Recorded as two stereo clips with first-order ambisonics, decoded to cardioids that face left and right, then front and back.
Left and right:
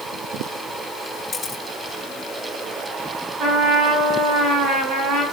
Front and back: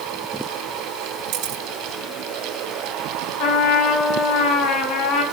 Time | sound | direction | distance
1.3 | a camera shutter | 160° left | 1.9 m
3.4 | a trumpet | 35° right | 5.5 m